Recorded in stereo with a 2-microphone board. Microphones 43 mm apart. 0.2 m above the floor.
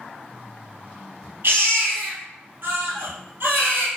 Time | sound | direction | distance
1.4 | a baby crying | 55° right (ahead or behind) | 2 m